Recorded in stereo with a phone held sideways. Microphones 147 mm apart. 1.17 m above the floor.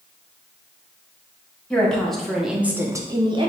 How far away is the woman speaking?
About 1.4 m.